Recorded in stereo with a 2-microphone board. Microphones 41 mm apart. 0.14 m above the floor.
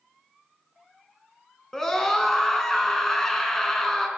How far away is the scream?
About 1.1 m.